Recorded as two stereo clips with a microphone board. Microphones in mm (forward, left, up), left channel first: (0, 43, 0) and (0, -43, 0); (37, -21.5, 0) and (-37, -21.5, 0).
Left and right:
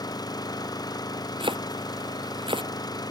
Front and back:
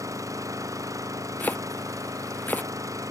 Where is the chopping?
70° right.